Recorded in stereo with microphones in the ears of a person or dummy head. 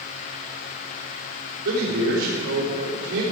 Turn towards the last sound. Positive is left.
turn(degrees=-70)  # may be behind; listen again after turning